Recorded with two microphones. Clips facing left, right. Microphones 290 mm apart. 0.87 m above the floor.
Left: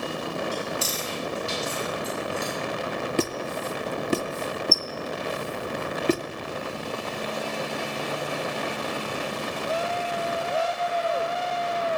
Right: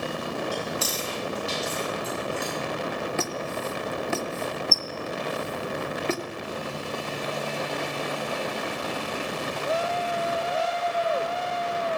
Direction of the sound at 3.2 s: 40° left (ahead or behind).